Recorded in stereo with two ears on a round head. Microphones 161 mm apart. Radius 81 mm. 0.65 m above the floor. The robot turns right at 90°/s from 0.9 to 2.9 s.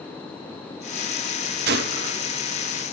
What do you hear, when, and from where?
1.7 s a gunshot: 105° right, 1.0 m; by 2.2 s 55° right, 1.0 m